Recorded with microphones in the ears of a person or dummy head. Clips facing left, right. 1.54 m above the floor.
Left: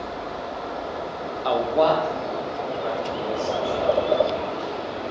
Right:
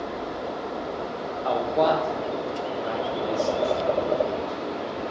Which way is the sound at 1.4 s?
30° left (ahead or behind).